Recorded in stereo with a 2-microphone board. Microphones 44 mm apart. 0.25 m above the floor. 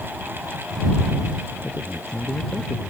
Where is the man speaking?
20° left (ahead or behind); by 2.9 s 25° left (ahead or behind).